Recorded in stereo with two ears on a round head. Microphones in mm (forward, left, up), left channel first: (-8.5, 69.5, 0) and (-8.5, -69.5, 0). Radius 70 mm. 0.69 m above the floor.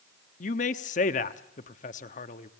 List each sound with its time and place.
0.4 s a man speaking: 50° left (ahead or behind), 1.1 m